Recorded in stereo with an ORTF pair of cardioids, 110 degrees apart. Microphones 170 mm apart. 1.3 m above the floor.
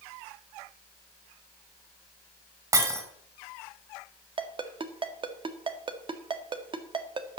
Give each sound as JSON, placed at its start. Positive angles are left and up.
{"t": 2.7, "sound": "breaking glass", "azimuth_deg": -20, "distance_m": 4.0}
{"t": 4.4, "sound": "a ringtone", "azimuth_deg": -30, "distance_m": 1.5}